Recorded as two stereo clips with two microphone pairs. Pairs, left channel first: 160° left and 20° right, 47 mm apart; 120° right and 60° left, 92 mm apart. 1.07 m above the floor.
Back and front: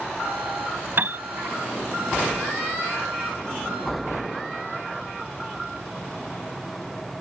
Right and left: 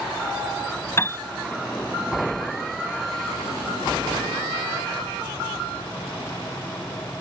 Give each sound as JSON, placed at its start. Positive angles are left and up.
{"t": 1.0, "sound": "a piano", "azimuth_deg": -60}